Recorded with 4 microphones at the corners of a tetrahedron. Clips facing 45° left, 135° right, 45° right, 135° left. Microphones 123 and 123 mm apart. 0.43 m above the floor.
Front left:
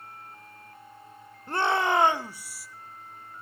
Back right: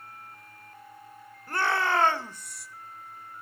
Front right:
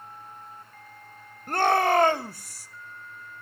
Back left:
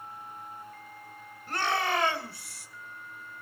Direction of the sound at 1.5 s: 20° right.